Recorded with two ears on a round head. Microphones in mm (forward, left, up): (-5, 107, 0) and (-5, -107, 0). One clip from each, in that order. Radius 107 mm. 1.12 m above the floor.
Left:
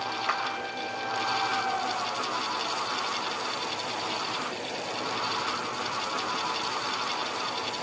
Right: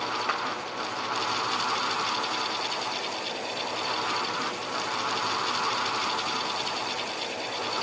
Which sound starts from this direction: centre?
A clap, at 0.3 s.